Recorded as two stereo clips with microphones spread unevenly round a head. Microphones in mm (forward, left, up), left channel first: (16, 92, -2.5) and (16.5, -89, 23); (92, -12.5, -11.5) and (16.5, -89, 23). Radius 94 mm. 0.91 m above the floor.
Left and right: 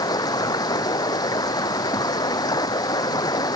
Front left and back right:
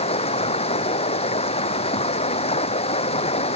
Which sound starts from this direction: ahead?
Running water, at 0.0 s.